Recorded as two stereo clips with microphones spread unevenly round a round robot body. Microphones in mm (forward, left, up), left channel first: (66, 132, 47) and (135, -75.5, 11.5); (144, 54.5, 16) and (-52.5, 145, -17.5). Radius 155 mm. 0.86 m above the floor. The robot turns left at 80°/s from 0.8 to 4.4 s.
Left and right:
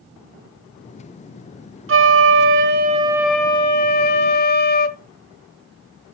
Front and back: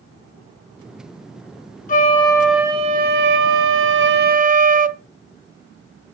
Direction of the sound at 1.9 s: 60° right.